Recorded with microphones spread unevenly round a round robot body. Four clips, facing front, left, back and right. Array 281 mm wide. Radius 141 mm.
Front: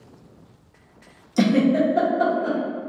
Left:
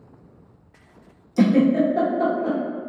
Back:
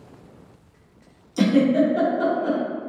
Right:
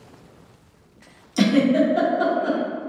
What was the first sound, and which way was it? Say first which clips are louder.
A giggle: left 1 dB, even; 100° left.